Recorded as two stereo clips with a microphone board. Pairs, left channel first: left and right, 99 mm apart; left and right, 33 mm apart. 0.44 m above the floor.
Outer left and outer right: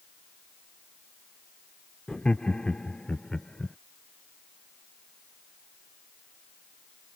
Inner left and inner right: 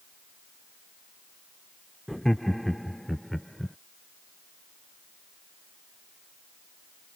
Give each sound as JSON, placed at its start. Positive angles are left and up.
{"t": 2.1, "sound": "laughter", "side_deg": 10}